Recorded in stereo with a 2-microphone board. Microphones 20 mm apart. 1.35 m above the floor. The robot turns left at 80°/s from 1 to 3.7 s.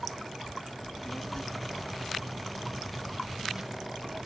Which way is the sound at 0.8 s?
30° left (ahead or behind).